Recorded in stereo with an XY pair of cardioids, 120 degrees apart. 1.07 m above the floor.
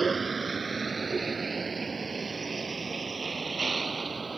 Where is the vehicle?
25° right.